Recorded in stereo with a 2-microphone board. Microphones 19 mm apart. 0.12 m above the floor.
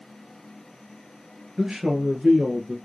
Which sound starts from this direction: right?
A man speaking, at 1.6 s.